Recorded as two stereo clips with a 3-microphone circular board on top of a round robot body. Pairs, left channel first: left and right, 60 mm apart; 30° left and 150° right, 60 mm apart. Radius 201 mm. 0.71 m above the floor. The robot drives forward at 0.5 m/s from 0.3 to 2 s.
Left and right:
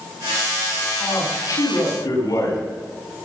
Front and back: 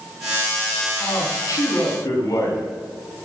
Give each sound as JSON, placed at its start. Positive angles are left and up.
{"t": 1.0, "sound": "a man speaking", "azimuth_deg": 65, "distance_m": 6.5}